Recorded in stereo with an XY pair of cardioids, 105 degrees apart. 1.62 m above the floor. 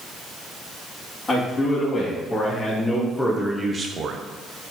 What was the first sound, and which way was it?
A man speaking, 20° left.